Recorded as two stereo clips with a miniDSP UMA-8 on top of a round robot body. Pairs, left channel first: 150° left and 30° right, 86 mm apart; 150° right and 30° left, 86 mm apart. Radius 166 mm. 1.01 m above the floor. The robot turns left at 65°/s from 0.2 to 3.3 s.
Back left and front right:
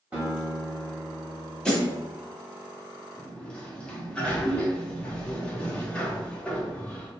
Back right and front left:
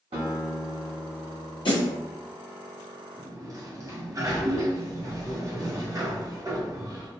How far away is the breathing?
No breathing in this recording.